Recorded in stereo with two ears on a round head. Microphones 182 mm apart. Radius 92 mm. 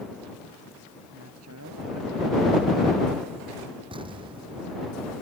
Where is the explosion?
25° right (ahead or behind).